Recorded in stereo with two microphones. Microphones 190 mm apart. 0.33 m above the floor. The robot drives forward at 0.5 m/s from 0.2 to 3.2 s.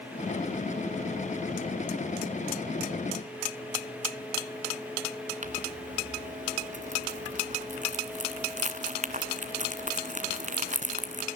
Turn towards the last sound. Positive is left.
turn(degrees=-45)  # may be behind; listen again after turning